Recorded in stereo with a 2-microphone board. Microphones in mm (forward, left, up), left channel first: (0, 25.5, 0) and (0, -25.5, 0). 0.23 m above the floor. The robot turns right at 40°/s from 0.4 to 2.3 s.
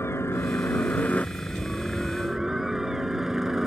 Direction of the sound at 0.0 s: 110° left.